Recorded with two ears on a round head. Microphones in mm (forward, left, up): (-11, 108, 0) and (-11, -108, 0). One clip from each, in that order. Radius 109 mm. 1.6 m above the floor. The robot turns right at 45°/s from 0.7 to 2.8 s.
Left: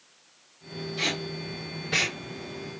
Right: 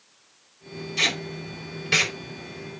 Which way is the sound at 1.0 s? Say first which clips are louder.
Right 5 dB; 70° right (ahead or behind).